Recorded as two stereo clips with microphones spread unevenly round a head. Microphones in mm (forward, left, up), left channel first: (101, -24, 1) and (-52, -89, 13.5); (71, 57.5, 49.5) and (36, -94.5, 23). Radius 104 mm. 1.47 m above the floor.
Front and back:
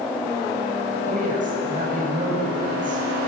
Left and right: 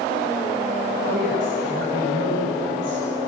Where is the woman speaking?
115° right, 7.5 m.